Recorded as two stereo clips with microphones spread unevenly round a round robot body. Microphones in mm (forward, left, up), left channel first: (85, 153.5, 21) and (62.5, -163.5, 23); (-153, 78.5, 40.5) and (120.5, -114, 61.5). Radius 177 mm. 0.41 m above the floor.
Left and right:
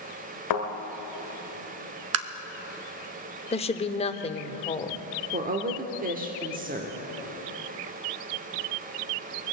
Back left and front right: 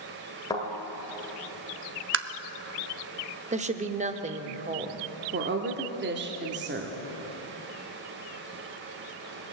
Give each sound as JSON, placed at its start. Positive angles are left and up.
{"t": 0.5, "sound": "a thud", "azimuth_deg": 65, "distance_m": 1.6}
{"t": 2.1, "sound": "tapping", "azimuth_deg": -80, "distance_m": 0.7}
{"t": 3.5, "sound": "a woman speaking", "azimuth_deg": 25, "distance_m": 0.9}
{"t": 5.3, "sound": "a woman speaking", "azimuth_deg": -60, "distance_m": 1.1}